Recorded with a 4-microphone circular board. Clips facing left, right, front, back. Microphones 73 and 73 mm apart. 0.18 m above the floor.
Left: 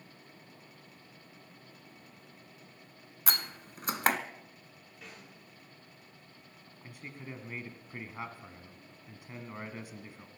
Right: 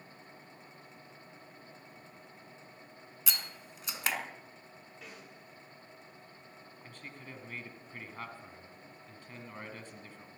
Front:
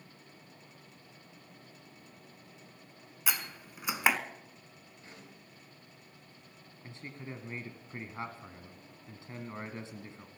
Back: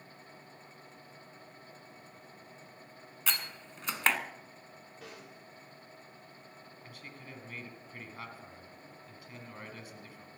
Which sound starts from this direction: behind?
A snare drum, at 5.0 s.